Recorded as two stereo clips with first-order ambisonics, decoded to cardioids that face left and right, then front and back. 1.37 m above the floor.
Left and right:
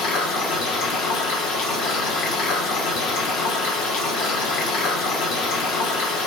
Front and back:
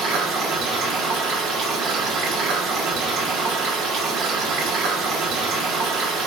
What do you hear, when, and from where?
0.0 s running water: 125° left, 1.1 m